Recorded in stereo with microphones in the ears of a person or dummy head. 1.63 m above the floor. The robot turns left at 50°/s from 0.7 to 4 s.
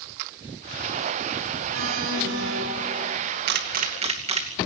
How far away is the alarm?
About 7.5 m.